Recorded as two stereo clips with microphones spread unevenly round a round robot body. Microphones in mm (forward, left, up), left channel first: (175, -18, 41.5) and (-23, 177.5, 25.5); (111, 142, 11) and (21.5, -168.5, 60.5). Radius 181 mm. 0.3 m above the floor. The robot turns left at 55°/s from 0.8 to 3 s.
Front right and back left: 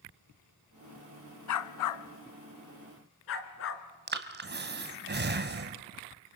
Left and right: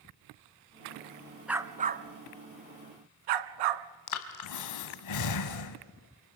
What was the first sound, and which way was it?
A dog barking, 20° right.